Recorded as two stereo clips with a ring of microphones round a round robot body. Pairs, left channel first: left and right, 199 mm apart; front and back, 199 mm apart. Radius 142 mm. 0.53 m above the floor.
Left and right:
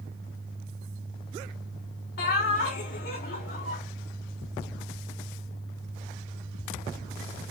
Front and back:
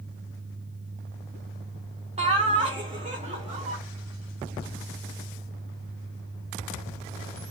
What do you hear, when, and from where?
2.2 s laughter: 125° left, 1.4 m